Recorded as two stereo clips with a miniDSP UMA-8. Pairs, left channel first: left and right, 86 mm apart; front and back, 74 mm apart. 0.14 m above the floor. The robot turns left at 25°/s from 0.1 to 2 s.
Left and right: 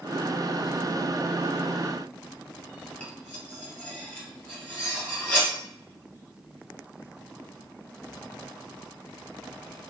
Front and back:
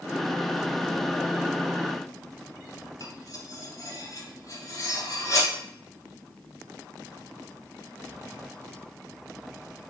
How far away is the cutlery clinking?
About 1.1 m.